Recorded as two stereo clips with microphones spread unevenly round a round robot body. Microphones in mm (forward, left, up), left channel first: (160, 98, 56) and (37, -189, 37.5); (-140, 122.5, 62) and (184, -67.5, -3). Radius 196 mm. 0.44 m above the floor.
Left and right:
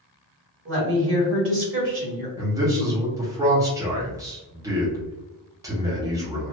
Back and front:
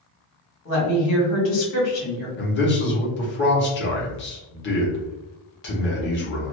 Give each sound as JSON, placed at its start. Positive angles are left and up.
{"t": 0.7, "sound": "a woman speaking", "azimuth_deg": -150, "distance_m": 1.9}
{"t": 2.4, "sound": "a man speaking", "azimuth_deg": -170, "distance_m": 1.0}